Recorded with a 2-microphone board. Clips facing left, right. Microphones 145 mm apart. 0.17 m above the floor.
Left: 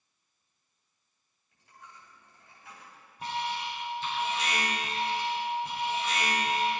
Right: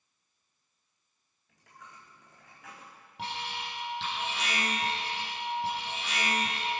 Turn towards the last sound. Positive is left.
turn(degrees=-80)